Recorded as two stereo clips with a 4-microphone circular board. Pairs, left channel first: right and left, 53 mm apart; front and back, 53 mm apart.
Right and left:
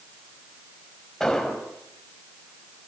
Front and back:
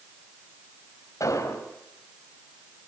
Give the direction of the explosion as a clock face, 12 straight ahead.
12 o'clock.